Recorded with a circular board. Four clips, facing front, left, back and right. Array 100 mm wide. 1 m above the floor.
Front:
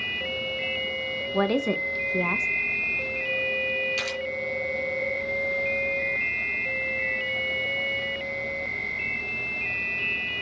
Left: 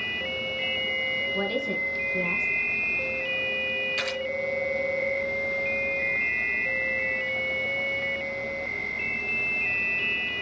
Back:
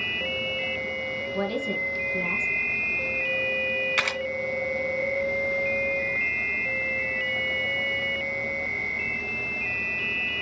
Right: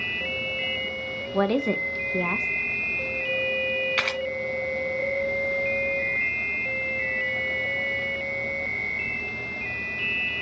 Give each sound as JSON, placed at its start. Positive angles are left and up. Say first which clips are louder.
{"t": 1.3, "sound": "a woman speaking", "louder": "right 8 dB, front 5 dB", "azimuth_deg": -45, "distance_m": 1.2}
{"t": 4.0, "sound": "a camera shutter", "louder": "right 3 dB, back 3 dB", "azimuth_deg": -140, "distance_m": 2.5}